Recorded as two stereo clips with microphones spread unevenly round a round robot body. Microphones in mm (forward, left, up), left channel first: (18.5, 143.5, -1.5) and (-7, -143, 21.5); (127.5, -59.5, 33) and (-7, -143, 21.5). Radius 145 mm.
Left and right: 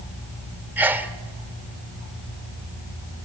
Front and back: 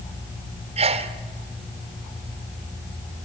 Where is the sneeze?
Straight behind, 1.4 m.